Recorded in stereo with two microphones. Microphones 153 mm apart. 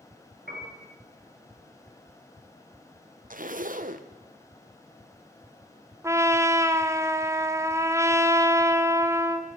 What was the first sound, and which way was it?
A piano, 90° right.